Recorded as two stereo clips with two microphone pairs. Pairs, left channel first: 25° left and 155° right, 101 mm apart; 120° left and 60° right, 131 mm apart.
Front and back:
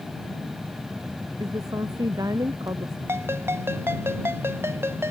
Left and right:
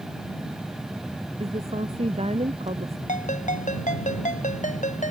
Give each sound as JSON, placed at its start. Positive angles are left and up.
{"t": 1.4, "sound": "a woman speaking", "azimuth_deg": -100}
{"t": 3.1, "sound": "a ringtone", "azimuth_deg": 140}